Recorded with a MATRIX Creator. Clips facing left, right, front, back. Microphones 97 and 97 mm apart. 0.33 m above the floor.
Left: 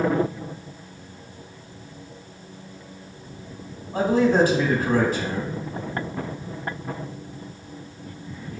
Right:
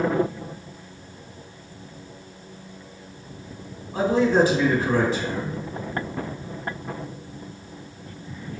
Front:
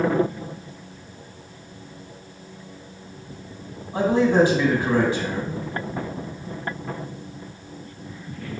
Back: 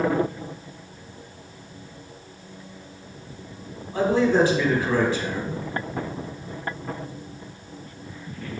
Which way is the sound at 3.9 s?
65° left.